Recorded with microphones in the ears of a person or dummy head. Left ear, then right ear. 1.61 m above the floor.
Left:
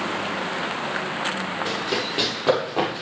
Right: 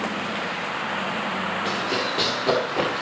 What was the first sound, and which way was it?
Running footsteps, 15° left (ahead or behind).